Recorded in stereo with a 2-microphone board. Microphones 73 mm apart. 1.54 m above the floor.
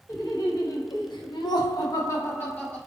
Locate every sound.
0.1 s laughter: 55° left (ahead or behind), 1.3 m; by 2.8 s 20° left (ahead or behind), 1.1 m